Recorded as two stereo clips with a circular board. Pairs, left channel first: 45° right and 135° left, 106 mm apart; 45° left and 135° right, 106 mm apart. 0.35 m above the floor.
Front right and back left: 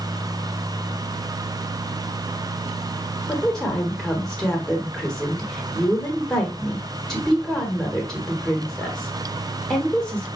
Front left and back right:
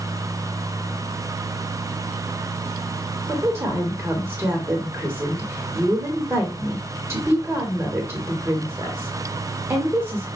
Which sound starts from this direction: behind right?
A woman speaking, at 3.3 s.